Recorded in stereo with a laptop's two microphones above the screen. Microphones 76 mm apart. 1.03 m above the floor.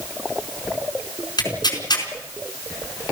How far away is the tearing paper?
About 4.5 m.